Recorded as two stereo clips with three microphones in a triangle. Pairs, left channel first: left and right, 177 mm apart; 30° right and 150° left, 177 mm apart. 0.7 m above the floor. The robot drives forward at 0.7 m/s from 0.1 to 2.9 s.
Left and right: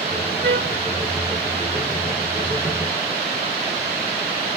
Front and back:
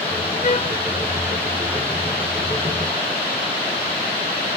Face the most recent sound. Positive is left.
turn(degrees=-110)